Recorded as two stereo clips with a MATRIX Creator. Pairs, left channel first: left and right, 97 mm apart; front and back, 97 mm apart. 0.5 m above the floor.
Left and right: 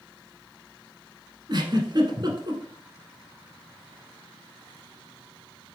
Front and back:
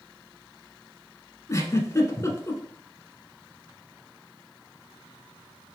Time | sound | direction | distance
1.5 | a giggle | 55° right | 0.9 m